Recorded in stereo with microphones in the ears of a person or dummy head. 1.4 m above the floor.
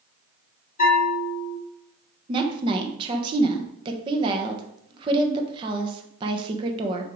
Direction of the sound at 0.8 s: 45° left (ahead or behind).